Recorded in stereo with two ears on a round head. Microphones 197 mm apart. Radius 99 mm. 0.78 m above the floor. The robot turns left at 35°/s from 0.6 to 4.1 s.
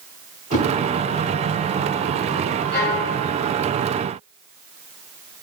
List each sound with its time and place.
0.5 s a whoosh: 35° left (ahead or behind), 0.7 m
2.7 s a violin: 50° left (ahead or behind), 2.0 m; by 3.1 s 40° left (ahead or behind), 2.0 m